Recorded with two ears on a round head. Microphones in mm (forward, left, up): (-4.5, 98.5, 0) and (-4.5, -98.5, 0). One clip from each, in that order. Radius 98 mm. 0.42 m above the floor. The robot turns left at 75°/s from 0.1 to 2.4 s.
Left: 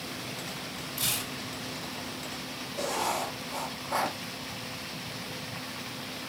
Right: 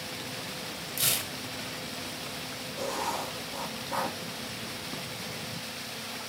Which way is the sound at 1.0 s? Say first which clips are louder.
Right 2 dB; 50° right (ahead or behind).